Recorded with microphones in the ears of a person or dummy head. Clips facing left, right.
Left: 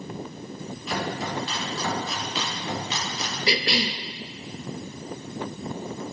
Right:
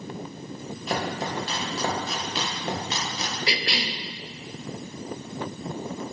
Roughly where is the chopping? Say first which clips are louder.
Right 1 dB; right.